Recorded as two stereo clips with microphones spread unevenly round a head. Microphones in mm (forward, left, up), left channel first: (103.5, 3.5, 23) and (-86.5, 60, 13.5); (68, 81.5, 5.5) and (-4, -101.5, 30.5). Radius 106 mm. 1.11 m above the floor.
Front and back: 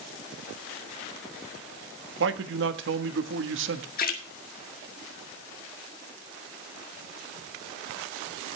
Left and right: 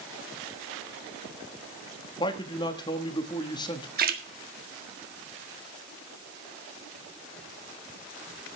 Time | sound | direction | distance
2.2 | a man speaking | 140° left | 1.5 m
4.0 | a splash | 70° right | 1.8 m